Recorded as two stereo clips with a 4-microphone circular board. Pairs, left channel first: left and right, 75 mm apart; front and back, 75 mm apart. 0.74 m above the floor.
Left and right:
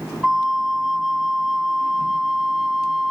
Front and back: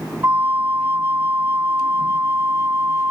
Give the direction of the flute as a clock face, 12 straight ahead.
6 o'clock.